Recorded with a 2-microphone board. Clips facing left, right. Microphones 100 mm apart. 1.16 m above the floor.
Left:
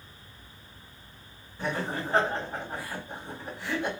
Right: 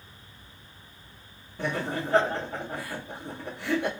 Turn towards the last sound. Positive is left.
turn(degrees=-75)  # may be behind; listen again after turning